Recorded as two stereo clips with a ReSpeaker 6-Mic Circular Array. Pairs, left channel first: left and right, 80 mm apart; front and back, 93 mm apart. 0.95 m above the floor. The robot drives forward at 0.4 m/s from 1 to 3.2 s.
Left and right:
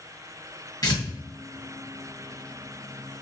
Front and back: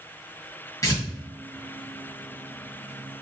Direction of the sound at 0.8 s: 50° left.